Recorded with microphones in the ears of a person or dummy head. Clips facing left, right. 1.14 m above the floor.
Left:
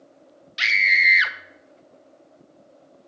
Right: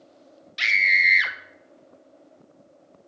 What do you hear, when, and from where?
0.6 s a scream: 5° left (ahead or behind), 0.7 m